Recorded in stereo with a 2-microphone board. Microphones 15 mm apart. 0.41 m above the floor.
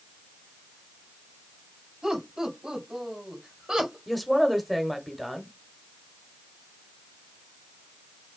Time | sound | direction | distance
2.0 | laughter | 50° right (ahead or behind) | 3 m
4.1 | a woman speaking | centre (ahead or behind) | 1.1 m